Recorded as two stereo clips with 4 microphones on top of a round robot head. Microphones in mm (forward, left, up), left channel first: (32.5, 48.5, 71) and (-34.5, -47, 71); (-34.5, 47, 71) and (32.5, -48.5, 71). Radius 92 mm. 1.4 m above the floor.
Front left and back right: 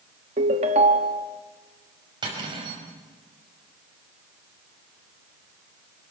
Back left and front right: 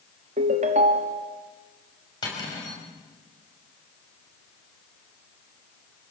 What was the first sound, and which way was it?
A ringtone, 90° right.